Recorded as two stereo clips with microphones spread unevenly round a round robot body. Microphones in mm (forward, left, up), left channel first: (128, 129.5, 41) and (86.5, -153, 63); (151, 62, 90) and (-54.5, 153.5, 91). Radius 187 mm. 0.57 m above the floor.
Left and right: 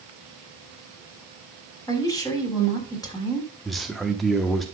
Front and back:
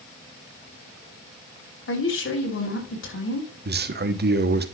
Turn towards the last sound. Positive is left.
turn(degrees=165)